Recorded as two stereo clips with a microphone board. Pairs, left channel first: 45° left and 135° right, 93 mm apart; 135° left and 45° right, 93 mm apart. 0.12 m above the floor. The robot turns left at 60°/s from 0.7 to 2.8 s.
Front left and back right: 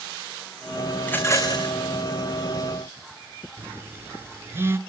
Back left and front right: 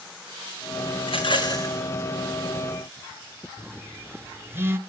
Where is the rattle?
120° left, 4 m; by 1.7 s 80° left, 4 m.